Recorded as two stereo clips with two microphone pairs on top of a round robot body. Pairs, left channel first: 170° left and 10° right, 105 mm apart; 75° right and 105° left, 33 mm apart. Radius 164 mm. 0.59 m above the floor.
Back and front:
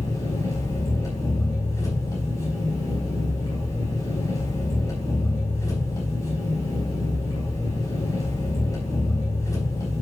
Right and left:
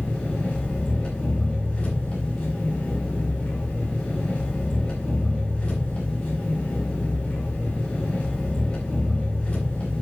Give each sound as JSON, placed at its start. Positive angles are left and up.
{"t": 0.0, "sound": "an engine running", "azimuth_deg": -130, "distance_m": 5.0}